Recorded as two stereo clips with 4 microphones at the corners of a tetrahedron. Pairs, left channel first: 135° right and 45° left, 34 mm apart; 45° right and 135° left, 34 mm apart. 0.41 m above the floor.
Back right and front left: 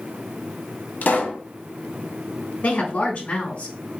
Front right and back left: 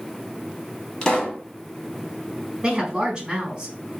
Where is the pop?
110° right, 1.0 m.